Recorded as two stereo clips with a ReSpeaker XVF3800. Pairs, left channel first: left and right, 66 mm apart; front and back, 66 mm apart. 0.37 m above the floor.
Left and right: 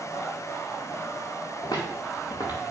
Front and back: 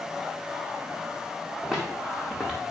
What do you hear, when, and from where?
1.6 s footsteps: 90° left, 2.5 m